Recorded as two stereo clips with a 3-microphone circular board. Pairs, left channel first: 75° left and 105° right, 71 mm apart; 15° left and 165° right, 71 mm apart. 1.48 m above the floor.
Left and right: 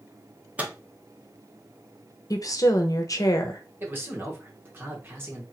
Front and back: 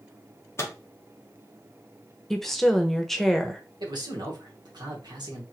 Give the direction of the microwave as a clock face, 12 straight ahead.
1 o'clock.